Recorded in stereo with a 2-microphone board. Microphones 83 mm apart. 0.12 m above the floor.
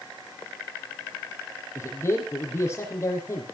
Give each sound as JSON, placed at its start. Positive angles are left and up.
{"t": 1.8, "sound": "a man speaking", "side_deg": 30, "distance_m": 5.0}